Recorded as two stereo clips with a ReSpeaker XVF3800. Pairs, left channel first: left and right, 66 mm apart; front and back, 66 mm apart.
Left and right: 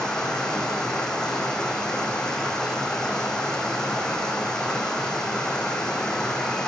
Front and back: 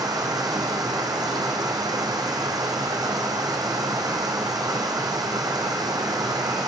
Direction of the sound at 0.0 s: 170° left.